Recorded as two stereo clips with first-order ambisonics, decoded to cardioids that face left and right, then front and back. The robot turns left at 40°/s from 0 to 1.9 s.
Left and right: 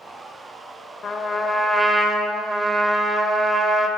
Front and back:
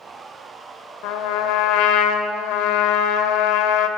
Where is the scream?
I don't hear a scream.